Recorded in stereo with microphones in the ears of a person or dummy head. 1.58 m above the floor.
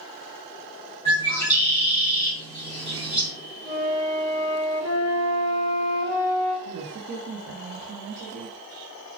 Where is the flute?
10° left (ahead or behind), 0.7 m.